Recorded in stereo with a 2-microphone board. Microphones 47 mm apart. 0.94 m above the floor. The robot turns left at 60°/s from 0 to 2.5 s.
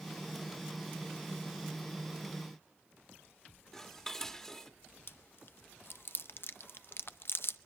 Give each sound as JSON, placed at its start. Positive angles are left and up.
{"t": 3.7, "sound": "dishes clattering", "side_deg": 10, "distance_m": 1.5}
{"t": 5.1, "sound": "chewing", "side_deg": 50, "distance_m": 0.7}